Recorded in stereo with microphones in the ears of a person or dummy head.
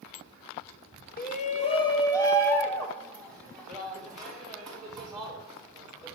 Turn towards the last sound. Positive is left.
turn(degrees=-5)  # may be behind; listen again after turning